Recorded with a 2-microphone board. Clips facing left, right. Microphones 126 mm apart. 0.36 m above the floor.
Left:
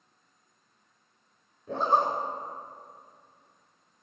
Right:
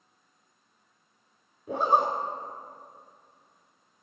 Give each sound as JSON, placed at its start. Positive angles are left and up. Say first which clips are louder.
{"t": 1.7, "sound": "a zipper", "louder": "right 1 dB", "side_deg": -10, "distance_m": 0.6}